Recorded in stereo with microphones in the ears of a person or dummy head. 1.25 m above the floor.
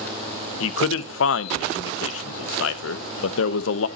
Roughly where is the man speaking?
Left.